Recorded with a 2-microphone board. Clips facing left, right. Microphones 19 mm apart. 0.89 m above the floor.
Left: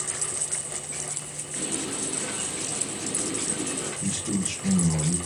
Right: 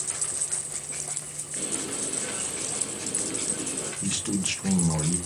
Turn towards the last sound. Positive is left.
turn(degrees=-40)  # may be behind; listen again after turning